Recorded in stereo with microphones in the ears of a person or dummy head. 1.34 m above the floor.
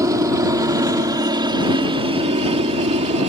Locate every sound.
0.0 s a helicopter: 15° right (ahead or behind); by 3.3 s 35° right (ahead or behind)